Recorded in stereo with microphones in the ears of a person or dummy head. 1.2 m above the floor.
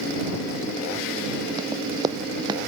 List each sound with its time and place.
1.6 s running footsteps: 20° right (ahead or behind); by 2.6 s 25° right (ahead or behind)